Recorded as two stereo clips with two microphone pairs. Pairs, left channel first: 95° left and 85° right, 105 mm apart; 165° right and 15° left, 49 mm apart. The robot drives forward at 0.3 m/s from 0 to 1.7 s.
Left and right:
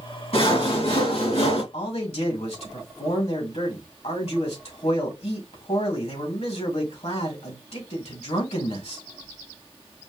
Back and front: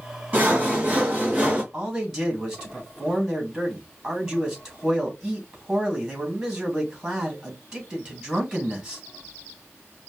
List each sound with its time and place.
0.3 s sawing: 80° left, 3 m; by 1.6 s 85° left, 2.5 m
1.7 s a man speaking: 95° left, 2.5 m